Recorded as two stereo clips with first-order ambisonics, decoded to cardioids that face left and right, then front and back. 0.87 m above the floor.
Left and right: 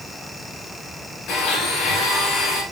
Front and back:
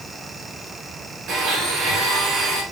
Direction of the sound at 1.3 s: 140° left.